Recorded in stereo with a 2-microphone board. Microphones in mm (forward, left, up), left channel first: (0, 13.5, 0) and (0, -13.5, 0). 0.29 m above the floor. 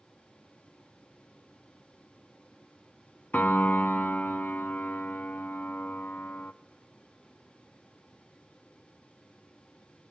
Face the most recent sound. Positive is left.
turn(degrees=80)